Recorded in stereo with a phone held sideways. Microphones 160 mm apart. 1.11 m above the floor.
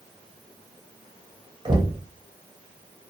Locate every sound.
1.6 s knocking: 30° right (ahead or behind), 0.8 m